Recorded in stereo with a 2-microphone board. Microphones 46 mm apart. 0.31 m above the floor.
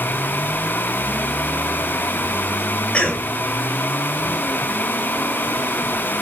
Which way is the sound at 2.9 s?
25° left (ahead or behind).